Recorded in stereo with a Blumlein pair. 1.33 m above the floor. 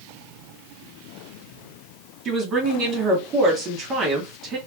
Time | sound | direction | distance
2.2 | a woman speaking | 25° right | 2.5 m